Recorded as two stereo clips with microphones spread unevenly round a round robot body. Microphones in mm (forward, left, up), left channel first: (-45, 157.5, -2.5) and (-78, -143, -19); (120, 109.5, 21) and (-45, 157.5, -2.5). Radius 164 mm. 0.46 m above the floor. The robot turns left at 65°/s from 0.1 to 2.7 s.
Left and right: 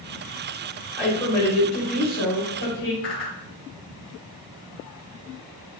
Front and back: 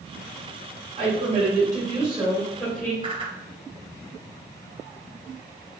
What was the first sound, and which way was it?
A woman speaking, 170° left.